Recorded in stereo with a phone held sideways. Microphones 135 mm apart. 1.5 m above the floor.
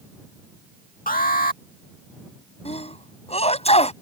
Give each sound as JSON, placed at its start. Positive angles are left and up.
{"t": 1.1, "sound": "an alarm", "side_deg": 85}
{"t": 2.6, "sound": "a sneeze", "side_deg": 45}